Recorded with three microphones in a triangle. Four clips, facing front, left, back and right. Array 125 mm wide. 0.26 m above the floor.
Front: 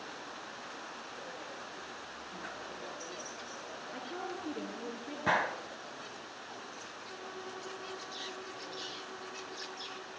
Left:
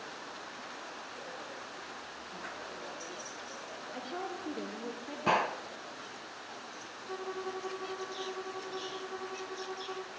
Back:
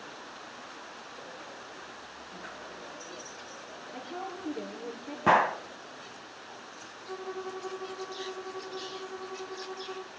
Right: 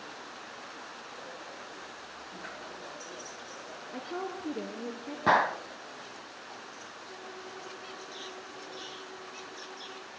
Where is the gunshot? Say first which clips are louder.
Right 5 dB, back 8 dB; 160° right, 0.6 m.